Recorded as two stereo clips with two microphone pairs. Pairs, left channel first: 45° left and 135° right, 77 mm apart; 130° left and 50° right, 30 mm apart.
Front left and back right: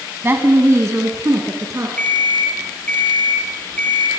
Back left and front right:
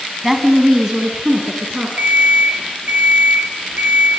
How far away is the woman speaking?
About 1.7 m.